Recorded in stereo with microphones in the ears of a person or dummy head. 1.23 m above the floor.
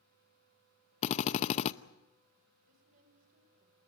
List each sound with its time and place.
1.0 s a drill: 35° left (ahead or behind), 0.7 m
2.6 s a woman speaking: 45° right (ahead or behind), 5 m